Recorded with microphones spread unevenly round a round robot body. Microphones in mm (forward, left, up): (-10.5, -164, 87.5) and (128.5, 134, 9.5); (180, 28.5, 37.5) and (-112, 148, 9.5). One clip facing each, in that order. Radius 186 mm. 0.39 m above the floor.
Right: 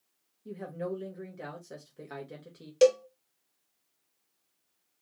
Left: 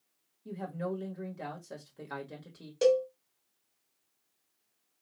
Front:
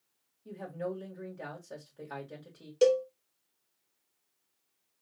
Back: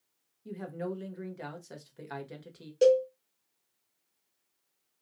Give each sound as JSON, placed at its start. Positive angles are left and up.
{"t": 0.5, "sound": "a woman speaking", "azimuth_deg": 135, "distance_m": 1.5}
{"t": 2.8, "sound": "a cowbell", "azimuth_deg": -95, "distance_m": 0.9}